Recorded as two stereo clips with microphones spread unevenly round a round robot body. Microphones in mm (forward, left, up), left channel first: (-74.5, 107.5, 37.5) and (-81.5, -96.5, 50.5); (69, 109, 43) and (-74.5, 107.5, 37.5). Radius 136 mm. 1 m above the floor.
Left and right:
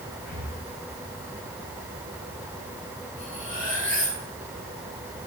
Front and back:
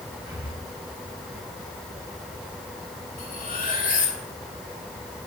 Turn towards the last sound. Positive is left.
turn(degrees=15)